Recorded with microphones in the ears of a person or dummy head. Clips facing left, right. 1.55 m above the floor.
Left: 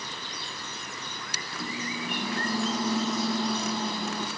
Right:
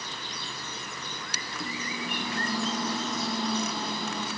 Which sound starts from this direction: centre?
A microwave, at 1.5 s.